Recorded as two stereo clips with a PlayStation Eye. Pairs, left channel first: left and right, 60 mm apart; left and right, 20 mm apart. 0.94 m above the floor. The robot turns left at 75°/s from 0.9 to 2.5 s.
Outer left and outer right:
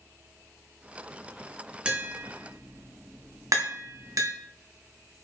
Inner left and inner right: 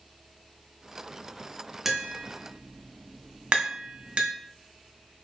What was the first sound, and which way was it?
Tapping, 15° right (ahead or behind).